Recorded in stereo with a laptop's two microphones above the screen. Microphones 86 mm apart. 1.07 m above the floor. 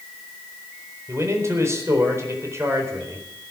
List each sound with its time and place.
1.1 s a man speaking: 35° right (ahead or behind), 4 m